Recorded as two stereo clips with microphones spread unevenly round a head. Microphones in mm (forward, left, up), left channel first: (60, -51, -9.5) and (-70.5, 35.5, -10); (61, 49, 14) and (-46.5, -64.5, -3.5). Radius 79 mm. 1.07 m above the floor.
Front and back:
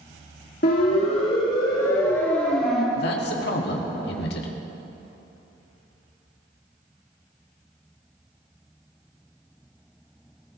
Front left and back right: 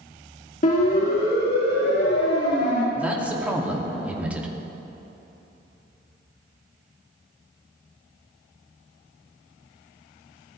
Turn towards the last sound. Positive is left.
turn(degrees=-50)